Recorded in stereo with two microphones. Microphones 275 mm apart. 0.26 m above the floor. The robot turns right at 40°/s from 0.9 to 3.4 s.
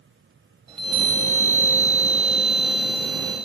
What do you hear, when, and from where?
0.7 s a chime: 20° right (ahead or behind), 1.2 m; by 3.4 s 10° left (ahead or behind), 1.2 m